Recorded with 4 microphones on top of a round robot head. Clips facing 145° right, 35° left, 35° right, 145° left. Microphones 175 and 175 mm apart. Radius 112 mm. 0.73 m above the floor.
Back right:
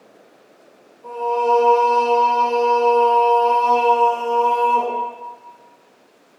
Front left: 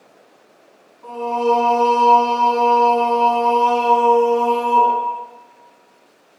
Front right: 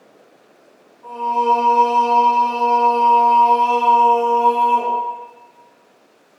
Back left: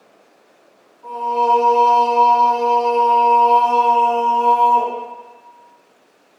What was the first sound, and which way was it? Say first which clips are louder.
Singing: front left 1 dB, back left 1 dB; 60° left.